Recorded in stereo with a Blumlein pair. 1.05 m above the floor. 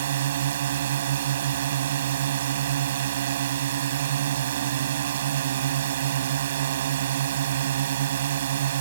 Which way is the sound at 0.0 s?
60° right.